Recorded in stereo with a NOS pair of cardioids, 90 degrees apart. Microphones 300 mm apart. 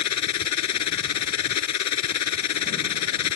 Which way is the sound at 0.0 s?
65° left.